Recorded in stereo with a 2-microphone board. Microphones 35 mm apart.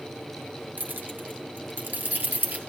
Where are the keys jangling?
65° right (ahead or behind), 3 m; by 2.6 s 55° right (ahead or behind), 3.5 m.